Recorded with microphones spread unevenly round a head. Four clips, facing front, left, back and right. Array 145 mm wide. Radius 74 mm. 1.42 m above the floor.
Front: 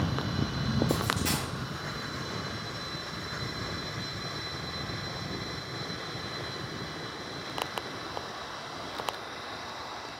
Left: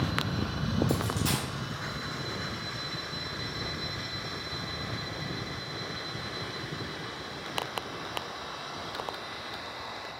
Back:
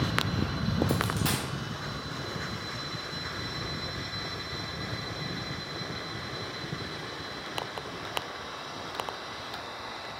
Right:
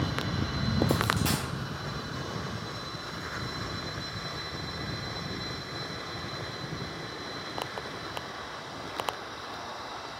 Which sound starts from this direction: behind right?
A dropped coin, at 0.9 s.